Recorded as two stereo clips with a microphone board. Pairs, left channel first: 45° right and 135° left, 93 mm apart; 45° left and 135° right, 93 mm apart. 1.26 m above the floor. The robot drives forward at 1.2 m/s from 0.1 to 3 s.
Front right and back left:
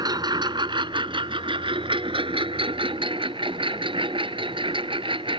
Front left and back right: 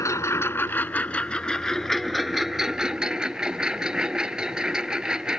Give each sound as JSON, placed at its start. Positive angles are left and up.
{"t": 0.0, "sound": "a lawn mower", "azimuth_deg": 100}